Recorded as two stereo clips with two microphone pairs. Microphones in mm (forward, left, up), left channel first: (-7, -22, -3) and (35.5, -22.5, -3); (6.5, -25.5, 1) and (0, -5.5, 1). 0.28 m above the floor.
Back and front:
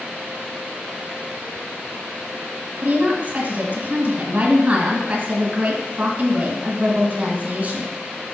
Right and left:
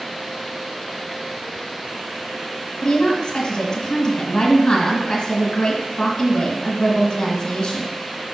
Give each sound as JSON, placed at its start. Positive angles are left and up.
{"t": 2.8, "sound": "a woman speaking", "azimuth_deg": -45, "distance_m": 1.9}